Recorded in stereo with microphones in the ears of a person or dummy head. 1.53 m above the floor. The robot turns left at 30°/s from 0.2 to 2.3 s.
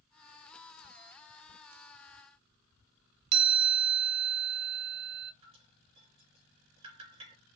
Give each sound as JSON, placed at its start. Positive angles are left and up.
{"t": 3.3, "sound": "a chime", "side_deg": -60, "distance_m": 1.1}
{"t": 5.4, "sound": "dripping", "side_deg": -30, "distance_m": 3.0}